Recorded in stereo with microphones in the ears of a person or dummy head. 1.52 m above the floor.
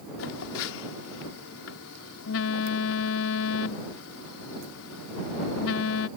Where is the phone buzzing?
80° left.